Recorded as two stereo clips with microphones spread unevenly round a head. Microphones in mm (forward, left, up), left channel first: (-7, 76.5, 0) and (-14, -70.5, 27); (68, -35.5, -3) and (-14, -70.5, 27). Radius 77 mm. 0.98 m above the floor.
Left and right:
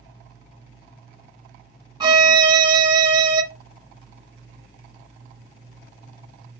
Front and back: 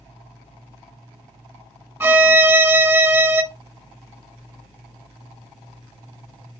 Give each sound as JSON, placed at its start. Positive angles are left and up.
{"t": 2.0, "sound": "a violin", "azimuth_deg": -130, "distance_m": 1.1}